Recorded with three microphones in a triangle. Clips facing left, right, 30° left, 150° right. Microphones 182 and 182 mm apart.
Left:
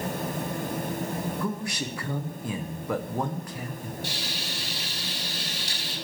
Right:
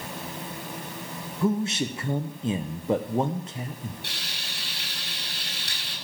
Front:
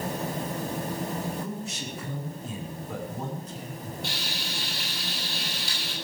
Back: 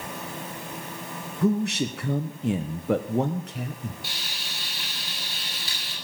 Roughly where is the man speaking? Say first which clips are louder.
Right 6 dB, back 11 dB; behind right.